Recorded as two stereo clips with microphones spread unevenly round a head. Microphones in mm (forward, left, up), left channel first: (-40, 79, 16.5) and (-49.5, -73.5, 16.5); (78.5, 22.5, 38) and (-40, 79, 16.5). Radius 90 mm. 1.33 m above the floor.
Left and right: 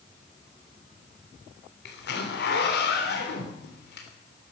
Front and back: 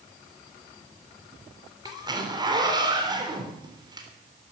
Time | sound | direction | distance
1.9 | a zipper | 95° left | 3.5 m